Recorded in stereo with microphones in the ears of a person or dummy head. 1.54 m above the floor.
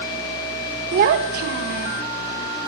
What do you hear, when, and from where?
0.9 s a child speaking: 50° right (ahead or behind), 1.0 m